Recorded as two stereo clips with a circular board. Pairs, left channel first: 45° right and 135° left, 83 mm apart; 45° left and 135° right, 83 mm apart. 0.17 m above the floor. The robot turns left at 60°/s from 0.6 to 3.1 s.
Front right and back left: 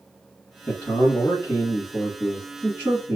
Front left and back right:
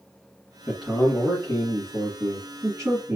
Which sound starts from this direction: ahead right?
A man speaking, at 0.7 s.